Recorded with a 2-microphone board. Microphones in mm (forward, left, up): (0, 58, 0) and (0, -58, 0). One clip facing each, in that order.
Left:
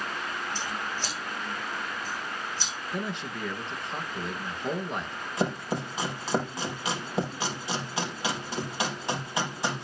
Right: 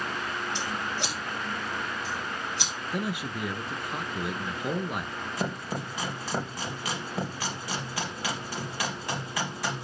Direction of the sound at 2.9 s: 10° right (ahead or behind).